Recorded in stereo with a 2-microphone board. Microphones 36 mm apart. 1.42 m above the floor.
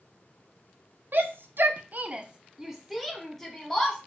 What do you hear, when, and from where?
1.1 s a shout: 65° right (ahead or behind), 0.6 m; by 4.0 s 10° left (ahead or behind), 1.4 m